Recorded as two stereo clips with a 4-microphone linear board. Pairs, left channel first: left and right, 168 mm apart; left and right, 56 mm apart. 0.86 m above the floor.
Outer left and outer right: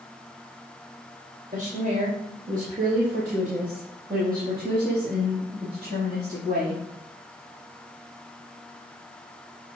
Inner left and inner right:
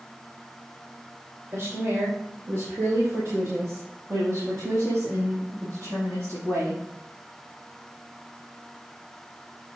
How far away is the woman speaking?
About 2.5 m.